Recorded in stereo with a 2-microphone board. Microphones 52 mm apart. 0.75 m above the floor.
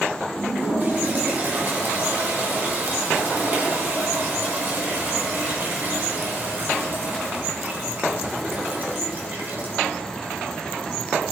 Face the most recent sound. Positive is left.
turn(degrees=-40)  # may be behind; listen again after turning